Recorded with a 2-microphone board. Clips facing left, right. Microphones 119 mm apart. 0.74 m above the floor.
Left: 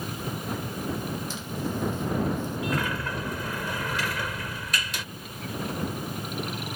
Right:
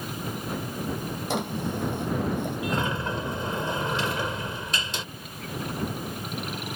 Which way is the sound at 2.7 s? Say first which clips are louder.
Right 2 dB; 25° right (ahead or behind).